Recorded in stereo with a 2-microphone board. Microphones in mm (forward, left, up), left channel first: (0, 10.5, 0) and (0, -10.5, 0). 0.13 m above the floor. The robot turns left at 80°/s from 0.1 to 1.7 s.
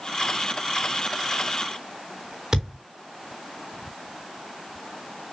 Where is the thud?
25° right (ahead or behind), 3.5 m.